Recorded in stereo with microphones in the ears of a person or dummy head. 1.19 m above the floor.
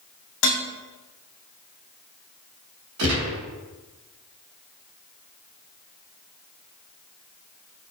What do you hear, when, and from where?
0.4 s dishes clattering: 80° left, 1.9 m
3.0 s a gunshot: 80° right, 2.5 m